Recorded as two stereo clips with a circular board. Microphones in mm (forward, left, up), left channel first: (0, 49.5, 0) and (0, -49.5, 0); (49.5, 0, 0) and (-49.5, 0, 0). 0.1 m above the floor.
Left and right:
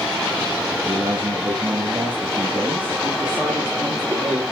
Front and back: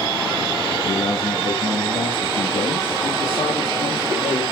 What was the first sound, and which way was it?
A man speaking, 20° right.